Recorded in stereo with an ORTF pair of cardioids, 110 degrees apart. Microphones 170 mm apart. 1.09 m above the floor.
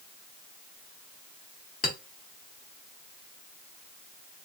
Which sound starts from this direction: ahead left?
A clink, at 1.8 s.